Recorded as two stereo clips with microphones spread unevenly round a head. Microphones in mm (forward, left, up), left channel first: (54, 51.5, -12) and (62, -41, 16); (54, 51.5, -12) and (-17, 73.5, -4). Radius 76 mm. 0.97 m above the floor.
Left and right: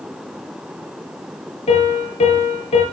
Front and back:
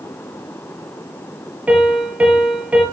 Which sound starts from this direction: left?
A piano, at 1.7 s.